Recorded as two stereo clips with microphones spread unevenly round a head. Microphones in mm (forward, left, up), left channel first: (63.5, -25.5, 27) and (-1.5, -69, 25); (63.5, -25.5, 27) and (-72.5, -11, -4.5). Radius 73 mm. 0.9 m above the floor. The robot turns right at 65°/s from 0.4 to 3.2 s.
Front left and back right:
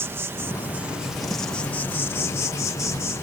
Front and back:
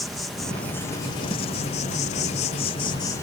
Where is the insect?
110° right; by 3.2 s 70° left.